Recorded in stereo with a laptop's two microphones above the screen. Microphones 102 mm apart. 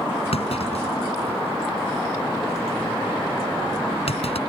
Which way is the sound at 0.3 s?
75° left (ahead or behind).